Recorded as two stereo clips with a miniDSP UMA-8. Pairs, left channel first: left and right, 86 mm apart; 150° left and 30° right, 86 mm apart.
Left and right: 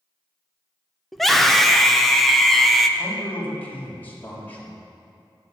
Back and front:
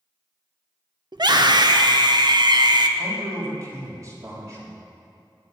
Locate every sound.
1.1 s a scream: straight ahead, 1.2 m
3.0 s a man speaking: 20° left, 3.5 m